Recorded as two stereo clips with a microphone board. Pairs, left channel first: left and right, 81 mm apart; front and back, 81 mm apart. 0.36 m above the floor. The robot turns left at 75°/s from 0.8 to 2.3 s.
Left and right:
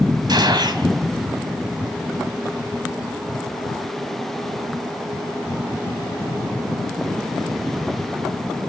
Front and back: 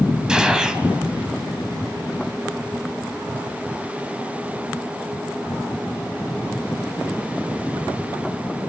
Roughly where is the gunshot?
Right.